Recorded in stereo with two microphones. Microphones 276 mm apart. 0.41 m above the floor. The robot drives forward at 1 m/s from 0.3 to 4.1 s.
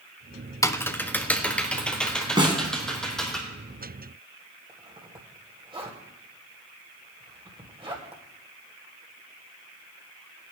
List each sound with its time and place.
0.6 s typing on a keyboard: 10° left (ahead or behind), 0.5 m; by 3.4 s centre (ahead or behind), 3 m
2.4 s a snare drum: 15° right (ahead or behind), 2.0 m; by 2.6 s 20° right (ahead or behind), 1.7 m
4.7 s a zipper: 20° right (ahead or behind), 2 m